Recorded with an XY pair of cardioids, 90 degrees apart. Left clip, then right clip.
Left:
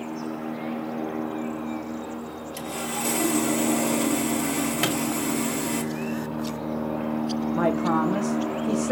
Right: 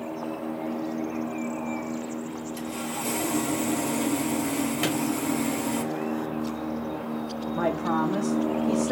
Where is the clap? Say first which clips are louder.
Left 2 dB; 40° left, 1.7 m.